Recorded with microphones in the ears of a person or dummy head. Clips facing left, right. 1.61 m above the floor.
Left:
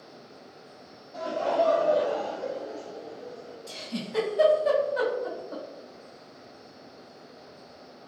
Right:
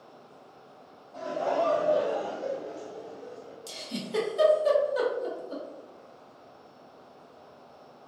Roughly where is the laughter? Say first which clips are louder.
Left 2 dB; left.